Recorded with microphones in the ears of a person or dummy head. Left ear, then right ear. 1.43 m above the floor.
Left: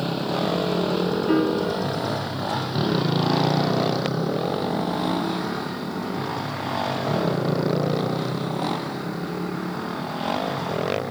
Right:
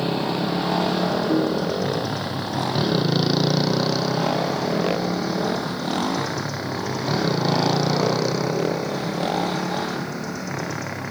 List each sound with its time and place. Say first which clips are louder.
0.0 s a motorcycle: right 1 dB; 10° right (ahead or behind); by 11.1 s 30° right (ahead or behind)
1.3 s a piano: even; 75° left (ahead or behind)